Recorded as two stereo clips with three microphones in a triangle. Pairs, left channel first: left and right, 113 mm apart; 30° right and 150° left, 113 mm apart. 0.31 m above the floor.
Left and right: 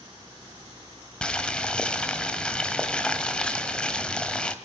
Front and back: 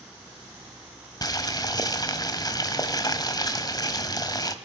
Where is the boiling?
10° left, 1.6 m.